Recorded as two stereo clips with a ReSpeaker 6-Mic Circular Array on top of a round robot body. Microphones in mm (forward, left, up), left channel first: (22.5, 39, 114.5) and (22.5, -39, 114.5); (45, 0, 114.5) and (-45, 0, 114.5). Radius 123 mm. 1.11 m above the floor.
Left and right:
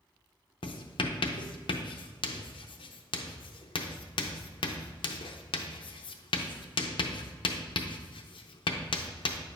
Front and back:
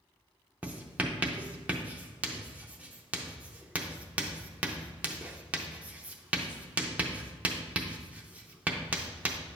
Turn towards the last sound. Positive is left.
turn(degrees=105)